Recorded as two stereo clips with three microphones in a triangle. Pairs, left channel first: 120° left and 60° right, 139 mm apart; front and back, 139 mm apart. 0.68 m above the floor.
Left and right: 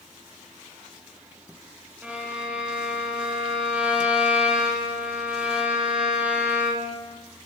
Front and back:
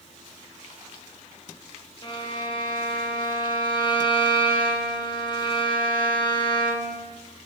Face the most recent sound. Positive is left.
turn(degrees=15)